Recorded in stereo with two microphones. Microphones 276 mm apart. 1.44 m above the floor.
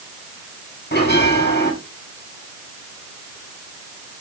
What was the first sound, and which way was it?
A bell, 40° left (ahead or behind).